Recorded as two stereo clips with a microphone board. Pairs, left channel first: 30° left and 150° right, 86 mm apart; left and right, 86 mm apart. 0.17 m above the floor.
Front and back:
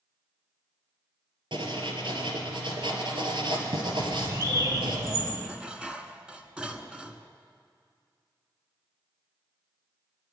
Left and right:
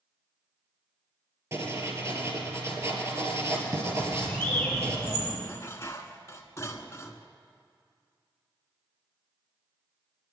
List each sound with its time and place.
1.5 s writing: 145° right, 3 m
4.0 s a bird: 165° left, 5.5 m
5.4 s dishes clattering: 135° left, 1.3 m